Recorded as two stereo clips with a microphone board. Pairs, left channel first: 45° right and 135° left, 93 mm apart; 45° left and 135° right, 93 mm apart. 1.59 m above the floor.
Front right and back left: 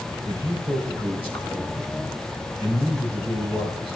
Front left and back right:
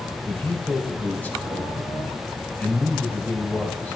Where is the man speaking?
30° right, 3.5 m.